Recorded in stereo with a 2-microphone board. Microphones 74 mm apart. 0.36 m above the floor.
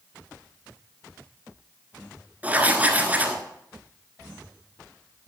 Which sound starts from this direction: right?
Writing, at 2.4 s.